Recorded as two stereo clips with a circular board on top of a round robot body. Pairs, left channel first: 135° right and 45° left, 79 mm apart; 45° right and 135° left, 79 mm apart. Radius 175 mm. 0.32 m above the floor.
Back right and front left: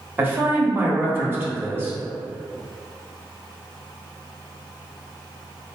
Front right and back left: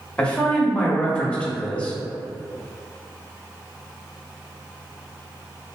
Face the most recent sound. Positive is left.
turn(degrees=15)